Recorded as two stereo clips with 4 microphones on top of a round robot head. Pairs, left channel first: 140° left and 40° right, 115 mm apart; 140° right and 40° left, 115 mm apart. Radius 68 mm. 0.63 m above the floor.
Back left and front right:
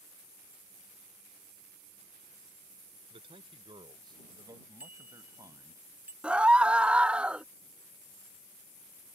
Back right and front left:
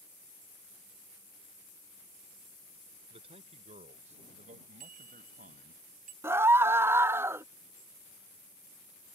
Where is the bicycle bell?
35° left.